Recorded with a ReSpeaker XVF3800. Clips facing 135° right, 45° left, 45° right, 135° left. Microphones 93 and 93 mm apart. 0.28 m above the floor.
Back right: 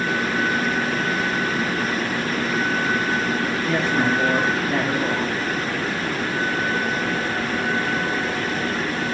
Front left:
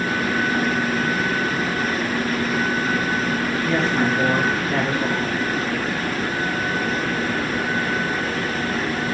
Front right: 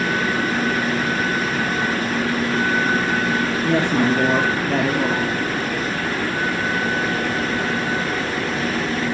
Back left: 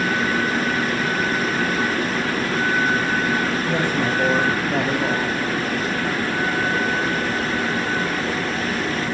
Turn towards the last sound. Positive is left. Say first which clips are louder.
# front left 1 dB, front right 3 dB
turn(degrees=-50)